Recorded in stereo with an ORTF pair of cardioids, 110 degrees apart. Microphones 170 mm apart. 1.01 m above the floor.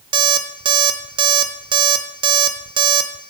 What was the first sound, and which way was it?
An alarm clock, 30° right.